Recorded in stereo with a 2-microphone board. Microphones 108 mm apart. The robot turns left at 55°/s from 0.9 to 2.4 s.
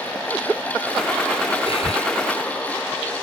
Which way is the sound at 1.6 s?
60° left (ahead or behind).